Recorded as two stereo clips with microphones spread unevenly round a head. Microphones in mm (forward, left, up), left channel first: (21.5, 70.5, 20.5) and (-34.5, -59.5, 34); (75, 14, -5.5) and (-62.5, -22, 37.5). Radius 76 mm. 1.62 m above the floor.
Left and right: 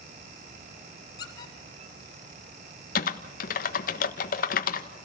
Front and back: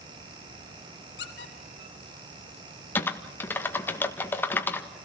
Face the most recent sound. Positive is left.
turn(degrees=95)